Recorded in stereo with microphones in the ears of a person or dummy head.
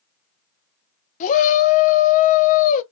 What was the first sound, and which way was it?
A shout, 45° left (ahead or behind).